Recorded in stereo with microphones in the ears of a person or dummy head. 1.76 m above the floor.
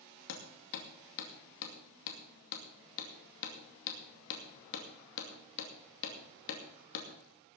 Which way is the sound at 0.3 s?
70° left (ahead or behind).